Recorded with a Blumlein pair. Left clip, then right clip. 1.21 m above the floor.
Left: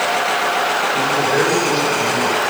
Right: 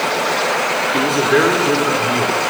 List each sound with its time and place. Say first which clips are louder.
0.9 s a man speaking: right 2 dB; 40° right, 3 m